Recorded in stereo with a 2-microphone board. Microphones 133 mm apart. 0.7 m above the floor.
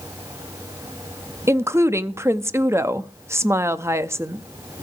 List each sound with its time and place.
1.5 s a woman speaking: 20° right (ahead or behind), 0.6 m